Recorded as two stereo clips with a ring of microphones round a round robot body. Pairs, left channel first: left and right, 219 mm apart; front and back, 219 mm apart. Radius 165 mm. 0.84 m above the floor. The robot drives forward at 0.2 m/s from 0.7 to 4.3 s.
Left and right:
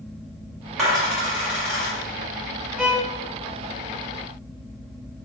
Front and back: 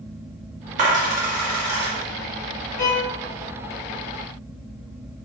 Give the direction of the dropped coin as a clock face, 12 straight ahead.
6 o'clock.